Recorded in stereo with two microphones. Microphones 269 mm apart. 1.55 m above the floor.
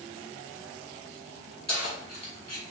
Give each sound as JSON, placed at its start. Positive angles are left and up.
{"t": 1.7, "sound": "keys jangling", "side_deg": 70, "distance_m": 1.8}